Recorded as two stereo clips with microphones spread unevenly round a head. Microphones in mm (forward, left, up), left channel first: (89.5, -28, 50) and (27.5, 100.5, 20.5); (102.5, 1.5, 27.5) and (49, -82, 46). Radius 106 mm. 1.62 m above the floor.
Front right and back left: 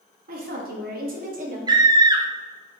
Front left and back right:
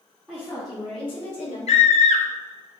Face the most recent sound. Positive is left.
turn(degrees=50)